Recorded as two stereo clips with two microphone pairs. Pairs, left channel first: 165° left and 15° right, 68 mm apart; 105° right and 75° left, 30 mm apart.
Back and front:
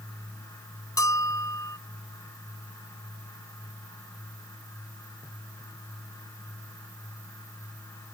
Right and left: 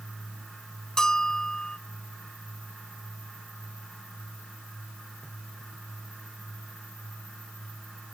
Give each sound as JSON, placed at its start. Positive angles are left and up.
{"t": 1.0, "sound": "a bell", "azimuth_deg": -170}